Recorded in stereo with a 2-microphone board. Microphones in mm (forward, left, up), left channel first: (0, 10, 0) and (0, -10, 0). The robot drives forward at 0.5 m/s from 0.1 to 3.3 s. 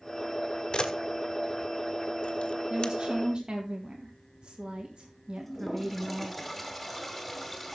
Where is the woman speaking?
55° right (ahead or behind), 1.4 m; by 6.3 s 60° right (ahead or behind), 1.3 m.